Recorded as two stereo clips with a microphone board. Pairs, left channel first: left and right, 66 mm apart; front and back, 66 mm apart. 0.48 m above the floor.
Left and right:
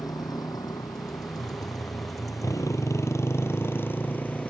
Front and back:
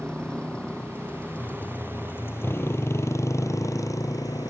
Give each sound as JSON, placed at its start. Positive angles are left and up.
{"t": 0.0, "sound": "a motorcycle", "azimuth_deg": 80}